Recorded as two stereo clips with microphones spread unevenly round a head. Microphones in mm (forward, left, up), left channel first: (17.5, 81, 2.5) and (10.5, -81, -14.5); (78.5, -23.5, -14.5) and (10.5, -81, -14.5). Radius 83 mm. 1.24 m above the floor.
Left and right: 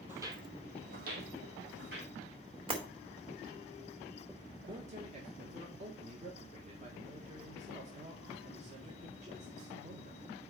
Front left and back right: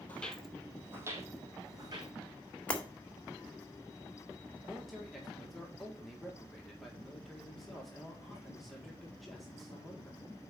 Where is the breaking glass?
35° right, 2 m.